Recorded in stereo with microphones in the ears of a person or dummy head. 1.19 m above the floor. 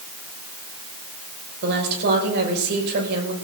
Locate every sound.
1.6 s a woman speaking: 60° right (ahead or behind), 6 m